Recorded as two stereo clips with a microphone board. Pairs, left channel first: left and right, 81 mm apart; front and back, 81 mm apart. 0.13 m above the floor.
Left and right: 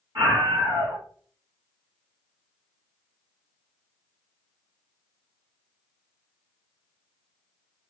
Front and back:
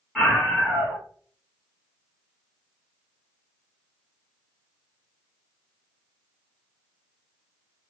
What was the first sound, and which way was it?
A scream, 85° right.